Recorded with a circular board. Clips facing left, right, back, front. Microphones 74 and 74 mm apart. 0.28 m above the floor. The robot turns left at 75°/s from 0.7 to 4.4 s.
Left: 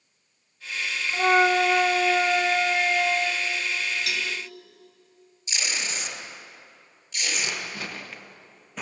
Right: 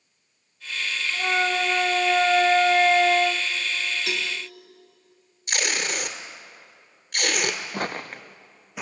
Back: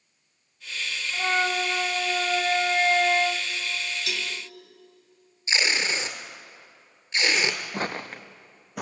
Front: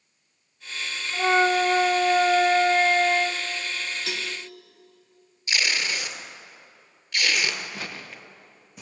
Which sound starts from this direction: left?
A flute, at 1.1 s.